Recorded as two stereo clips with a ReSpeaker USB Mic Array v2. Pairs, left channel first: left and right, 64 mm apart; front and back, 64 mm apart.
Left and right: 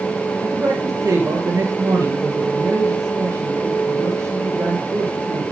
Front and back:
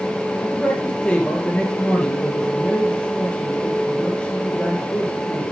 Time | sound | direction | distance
0.4 | a man speaking | 70° right | 2.5 m